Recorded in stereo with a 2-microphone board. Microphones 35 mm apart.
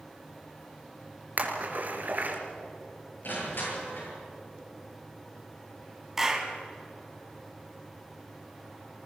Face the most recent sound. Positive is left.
turn(degrees=-10)  # may be behind; listen again after turning